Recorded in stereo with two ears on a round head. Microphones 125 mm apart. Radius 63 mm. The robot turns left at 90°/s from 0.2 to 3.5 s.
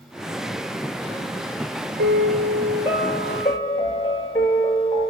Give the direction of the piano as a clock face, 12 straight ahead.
2 o'clock.